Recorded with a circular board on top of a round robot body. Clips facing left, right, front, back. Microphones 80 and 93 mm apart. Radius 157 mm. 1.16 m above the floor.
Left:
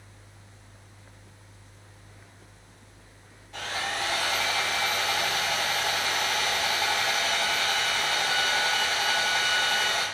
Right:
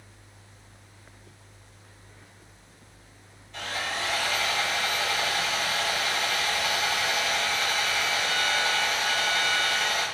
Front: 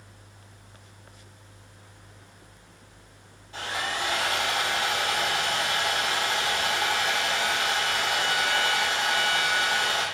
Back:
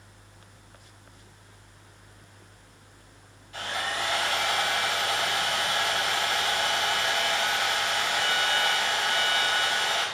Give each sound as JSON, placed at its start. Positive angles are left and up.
{"t": 3.5, "sound": "sawing", "azimuth_deg": 60, "distance_m": 2.0}